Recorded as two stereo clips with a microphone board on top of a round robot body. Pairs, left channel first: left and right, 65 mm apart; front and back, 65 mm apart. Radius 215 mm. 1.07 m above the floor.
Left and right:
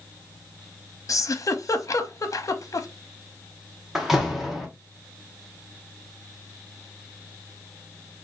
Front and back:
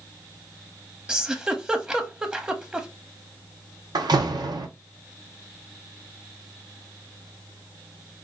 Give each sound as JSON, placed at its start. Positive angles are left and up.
{"t": 1.1, "sound": "a giggle", "azimuth_deg": 105, "distance_m": 0.8}
{"t": 4.0, "sound": "a door slam", "azimuth_deg": -175, "distance_m": 0.5}